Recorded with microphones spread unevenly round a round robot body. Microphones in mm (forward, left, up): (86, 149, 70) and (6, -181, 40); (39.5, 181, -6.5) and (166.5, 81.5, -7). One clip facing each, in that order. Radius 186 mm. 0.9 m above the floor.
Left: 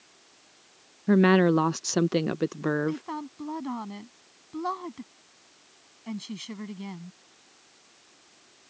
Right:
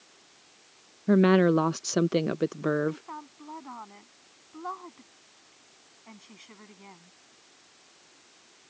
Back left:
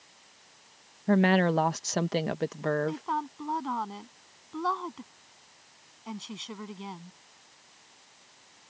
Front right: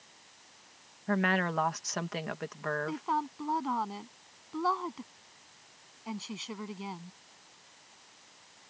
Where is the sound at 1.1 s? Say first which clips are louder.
Even, back left 7 dB; 165° left.